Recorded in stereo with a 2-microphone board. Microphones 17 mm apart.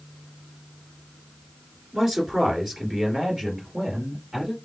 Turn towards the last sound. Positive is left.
turn(degrees=-60)  # may be behind; listen again after turning